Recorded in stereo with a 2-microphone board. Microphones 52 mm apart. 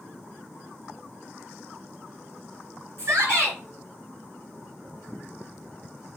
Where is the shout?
55° right (ahead or behind), 2.5 m.